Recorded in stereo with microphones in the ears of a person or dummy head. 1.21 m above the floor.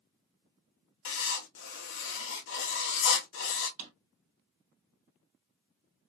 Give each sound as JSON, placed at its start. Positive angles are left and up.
{"t": 1.1, "sound": "writing", "side_deg": 55, "distance_m": 0.9}
{"t": 3.8, "sound": "a drawer", "side_deg": -35, "distance_m": 0.8}